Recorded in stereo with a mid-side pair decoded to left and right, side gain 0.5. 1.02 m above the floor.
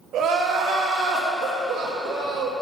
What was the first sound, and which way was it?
Crying, 60° right.